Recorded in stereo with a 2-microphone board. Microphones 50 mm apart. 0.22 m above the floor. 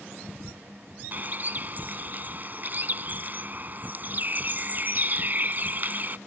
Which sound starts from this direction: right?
A bird, at 1.1 s.